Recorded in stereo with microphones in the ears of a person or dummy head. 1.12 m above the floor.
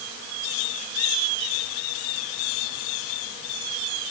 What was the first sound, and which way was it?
Only background noise.